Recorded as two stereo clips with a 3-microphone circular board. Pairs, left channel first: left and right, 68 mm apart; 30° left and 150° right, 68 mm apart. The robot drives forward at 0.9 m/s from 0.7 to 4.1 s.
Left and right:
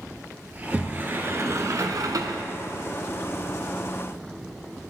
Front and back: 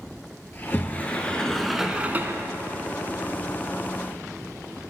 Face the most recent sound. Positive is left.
turn(degrees=-160)